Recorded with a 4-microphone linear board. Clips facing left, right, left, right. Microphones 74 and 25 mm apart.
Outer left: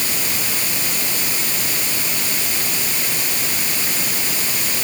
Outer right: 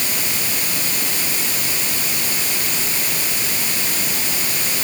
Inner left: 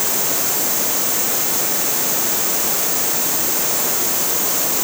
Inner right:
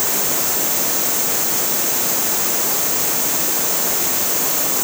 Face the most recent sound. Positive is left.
No sound to turn to.